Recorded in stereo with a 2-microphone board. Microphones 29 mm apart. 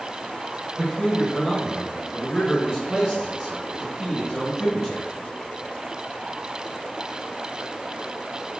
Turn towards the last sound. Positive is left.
turn(degrees=-10)  # may be behind; listen again after turning